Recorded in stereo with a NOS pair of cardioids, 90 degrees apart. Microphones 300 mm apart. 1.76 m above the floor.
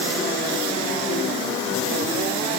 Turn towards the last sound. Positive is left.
No sound to turn to.